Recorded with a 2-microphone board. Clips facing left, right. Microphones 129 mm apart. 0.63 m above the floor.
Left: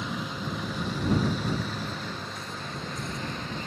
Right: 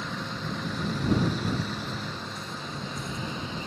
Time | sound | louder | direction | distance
0.0 | a vehicle | left 1 dB | 10° left (ahead or behind) | ?